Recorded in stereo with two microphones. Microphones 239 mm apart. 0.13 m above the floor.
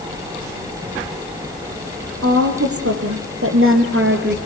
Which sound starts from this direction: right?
A woman speaking, at 2.2 s.